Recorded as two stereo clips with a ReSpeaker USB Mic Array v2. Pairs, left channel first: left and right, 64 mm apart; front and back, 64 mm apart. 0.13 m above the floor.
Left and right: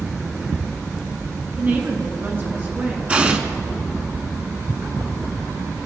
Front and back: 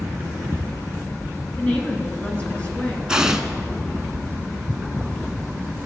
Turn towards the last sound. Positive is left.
turn(degrees=-120)